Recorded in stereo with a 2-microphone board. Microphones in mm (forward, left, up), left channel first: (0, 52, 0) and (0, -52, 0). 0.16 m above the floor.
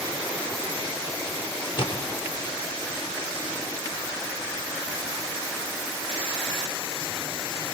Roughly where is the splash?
Left.